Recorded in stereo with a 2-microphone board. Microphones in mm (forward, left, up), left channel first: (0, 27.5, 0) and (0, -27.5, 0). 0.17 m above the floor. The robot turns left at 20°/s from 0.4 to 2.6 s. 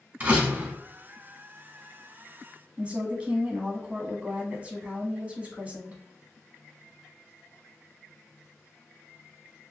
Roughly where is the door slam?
Right.